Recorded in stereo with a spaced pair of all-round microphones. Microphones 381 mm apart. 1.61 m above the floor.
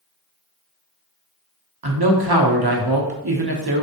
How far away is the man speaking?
About 0.9 m.